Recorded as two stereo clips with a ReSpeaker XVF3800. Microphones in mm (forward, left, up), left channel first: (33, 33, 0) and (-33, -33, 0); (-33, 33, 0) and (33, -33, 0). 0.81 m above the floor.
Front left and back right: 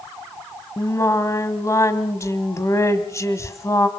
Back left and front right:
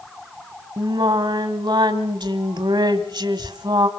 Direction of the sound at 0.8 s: 10° right.